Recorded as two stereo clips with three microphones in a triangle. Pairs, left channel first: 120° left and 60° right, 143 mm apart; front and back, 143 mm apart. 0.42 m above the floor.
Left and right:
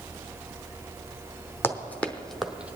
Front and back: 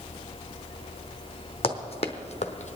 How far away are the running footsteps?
About 1.3 m.